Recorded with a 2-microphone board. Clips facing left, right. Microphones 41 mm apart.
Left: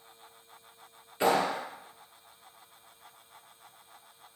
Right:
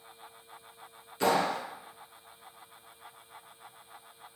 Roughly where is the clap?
Centre.